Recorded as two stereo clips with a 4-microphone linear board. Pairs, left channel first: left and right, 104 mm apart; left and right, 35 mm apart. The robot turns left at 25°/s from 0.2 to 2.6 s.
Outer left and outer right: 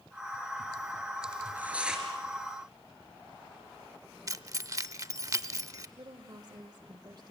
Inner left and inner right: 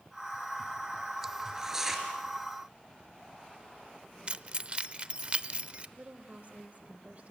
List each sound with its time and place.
1.4 s tearing paper: 20° right (ahead or behind), 4.5 m; by 2.1 s 5° right (ahead or behind), 4.5 m
4.3 s keys jangling: 35° right (ahead or behind), 0.7 m
6.0 s a woman speaking: 45° right (ahead or behind), 1.3 m